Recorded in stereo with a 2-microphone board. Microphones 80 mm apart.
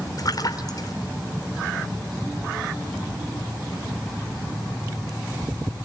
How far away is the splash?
About 3.5 m.